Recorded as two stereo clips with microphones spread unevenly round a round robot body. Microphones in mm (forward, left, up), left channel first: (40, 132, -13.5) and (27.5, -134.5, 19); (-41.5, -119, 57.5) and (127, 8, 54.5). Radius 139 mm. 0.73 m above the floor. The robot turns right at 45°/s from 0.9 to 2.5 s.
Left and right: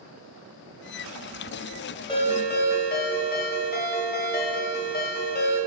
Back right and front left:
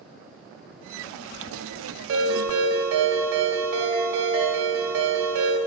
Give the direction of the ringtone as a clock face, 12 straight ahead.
12 o'clock.